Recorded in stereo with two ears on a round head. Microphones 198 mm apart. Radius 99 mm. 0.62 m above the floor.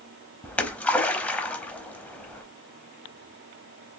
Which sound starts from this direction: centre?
A splash, at 0.4 s.